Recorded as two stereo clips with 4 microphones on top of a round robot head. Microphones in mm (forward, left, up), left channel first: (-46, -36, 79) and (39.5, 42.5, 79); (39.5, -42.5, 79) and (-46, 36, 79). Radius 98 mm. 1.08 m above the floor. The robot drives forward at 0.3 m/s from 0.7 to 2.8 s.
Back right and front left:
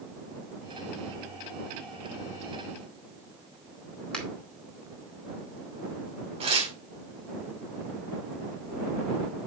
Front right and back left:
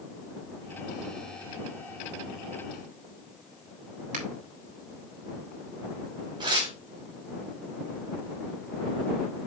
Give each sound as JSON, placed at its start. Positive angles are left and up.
{"t": 4.1, "sound": "a finger snap", "azimuth_deg": 140, "distance_m": 4.0}
{"t": 6.4, "sound": "tearing paper", "azimuth_deg": 85, "distance_m": 4.0}